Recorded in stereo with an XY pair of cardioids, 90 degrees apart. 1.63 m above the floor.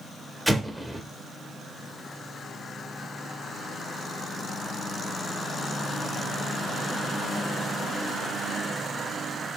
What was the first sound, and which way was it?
An explosion, straight ahead.